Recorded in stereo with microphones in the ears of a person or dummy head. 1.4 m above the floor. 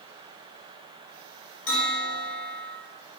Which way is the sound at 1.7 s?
75° left (ahead or behind).